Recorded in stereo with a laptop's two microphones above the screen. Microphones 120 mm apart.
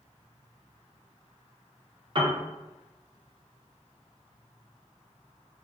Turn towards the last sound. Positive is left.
turn(degrees=-40)  # may be behind; listen again after turning